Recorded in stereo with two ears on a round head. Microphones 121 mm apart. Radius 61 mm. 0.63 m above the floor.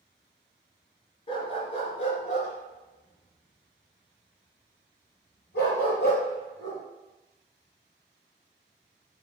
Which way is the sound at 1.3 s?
40° left (ahead or behind).